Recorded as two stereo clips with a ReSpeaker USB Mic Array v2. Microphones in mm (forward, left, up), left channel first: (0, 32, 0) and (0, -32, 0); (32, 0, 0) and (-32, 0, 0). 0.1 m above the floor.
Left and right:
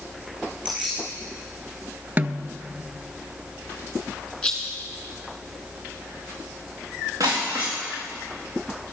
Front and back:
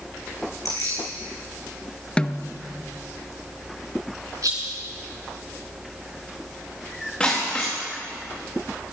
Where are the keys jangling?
20° right, 5 m.